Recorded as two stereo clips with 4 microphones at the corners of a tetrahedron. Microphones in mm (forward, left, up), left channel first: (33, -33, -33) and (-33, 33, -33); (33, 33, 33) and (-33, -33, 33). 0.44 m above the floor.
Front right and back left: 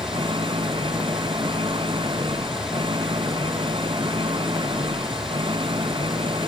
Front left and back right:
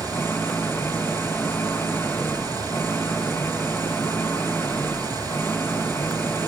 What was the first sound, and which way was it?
An engine running, 110° left.